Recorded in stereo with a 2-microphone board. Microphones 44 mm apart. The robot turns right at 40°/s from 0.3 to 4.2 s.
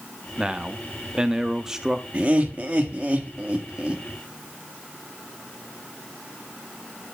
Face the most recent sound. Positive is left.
turn(degrees=-40)